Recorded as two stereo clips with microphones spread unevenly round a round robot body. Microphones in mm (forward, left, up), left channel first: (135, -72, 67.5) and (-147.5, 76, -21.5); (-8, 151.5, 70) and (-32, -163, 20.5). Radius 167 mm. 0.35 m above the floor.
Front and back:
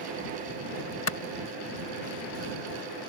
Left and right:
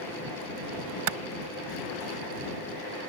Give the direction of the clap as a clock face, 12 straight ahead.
3 o'clock.